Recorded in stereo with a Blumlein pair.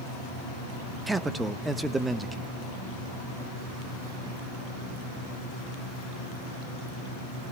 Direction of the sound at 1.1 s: 10° right.